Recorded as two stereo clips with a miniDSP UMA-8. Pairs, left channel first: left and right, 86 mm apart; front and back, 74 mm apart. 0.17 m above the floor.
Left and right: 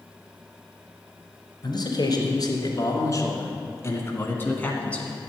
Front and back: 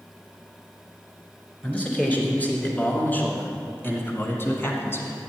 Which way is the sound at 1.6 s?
70° left.